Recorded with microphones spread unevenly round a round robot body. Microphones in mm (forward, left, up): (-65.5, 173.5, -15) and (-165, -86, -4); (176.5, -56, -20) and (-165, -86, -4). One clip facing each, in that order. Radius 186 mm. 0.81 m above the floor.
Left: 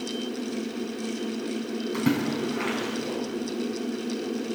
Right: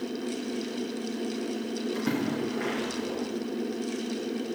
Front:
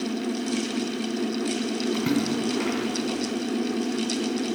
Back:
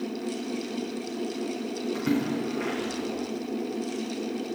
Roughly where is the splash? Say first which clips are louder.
Left 5 dB, even; ahead left.